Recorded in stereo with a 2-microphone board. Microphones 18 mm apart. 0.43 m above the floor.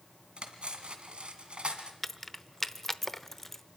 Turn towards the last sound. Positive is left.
turn(degrees=15)  # may be behind; listen again after turning